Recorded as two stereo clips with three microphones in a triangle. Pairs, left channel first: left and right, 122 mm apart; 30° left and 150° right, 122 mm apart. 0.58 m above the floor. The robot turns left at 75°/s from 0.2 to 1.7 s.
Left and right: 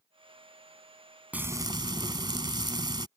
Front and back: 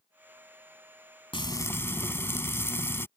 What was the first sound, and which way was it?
Frying, 15° right.